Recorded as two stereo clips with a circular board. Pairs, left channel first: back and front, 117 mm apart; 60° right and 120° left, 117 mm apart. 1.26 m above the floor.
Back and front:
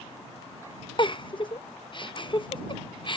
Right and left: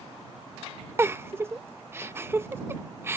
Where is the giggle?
Straight behind.